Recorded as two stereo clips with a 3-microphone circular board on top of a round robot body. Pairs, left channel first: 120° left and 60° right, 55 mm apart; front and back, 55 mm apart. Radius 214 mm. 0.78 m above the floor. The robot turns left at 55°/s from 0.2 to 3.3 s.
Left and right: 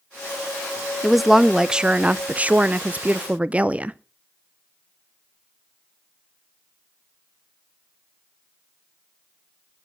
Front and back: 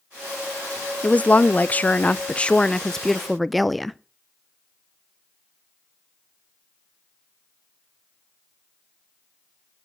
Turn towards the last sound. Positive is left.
turn(degrees=-90)